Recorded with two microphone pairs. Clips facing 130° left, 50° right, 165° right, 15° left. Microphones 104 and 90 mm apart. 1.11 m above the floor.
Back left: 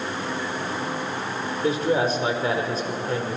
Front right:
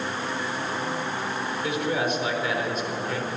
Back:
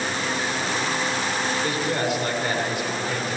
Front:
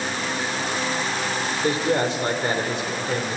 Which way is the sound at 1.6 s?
75° left.